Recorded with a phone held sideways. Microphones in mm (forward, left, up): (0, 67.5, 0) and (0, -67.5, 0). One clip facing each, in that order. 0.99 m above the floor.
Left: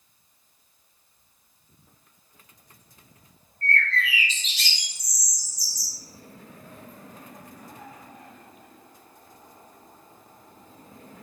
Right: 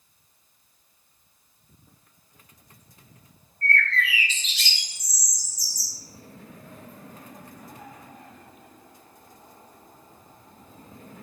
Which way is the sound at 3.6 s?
45° left (ahead or behind).